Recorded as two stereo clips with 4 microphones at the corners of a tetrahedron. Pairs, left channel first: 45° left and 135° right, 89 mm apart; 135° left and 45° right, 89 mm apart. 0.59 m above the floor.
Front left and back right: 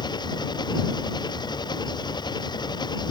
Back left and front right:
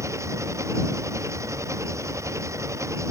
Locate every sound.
0.0 s an engine running: 10° left